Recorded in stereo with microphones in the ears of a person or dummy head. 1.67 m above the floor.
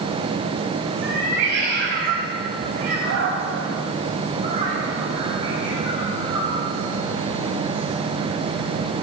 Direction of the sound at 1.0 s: 60° right (ahead or behind).